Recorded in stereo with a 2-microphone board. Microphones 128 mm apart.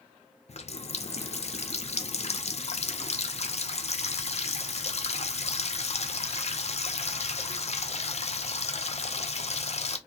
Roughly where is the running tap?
Left.